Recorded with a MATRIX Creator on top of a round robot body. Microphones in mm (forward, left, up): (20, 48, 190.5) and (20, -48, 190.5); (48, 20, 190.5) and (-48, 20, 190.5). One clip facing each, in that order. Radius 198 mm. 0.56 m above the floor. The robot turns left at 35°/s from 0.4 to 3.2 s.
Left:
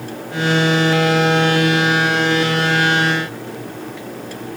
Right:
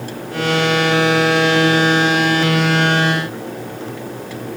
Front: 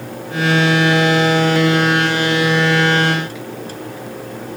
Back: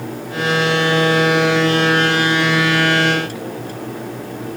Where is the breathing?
I don't hear breathing.